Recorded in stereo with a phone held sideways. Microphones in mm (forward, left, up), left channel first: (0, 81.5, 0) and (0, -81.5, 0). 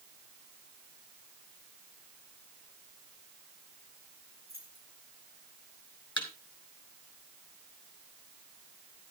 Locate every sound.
4.5 s keys jangling: 85° left, 10 m
6.2 s a thud: 30° left (ahead or behind), 4.5 m